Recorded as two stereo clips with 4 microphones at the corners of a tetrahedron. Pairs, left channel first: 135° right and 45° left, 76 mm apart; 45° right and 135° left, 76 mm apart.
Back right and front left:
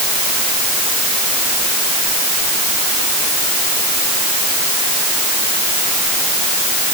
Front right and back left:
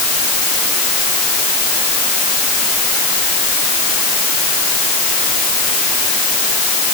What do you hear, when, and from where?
Only background noise.